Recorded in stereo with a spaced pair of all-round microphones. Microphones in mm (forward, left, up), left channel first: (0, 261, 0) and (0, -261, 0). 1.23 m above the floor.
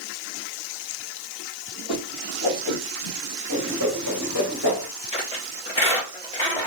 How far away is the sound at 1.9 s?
About 0.9 m.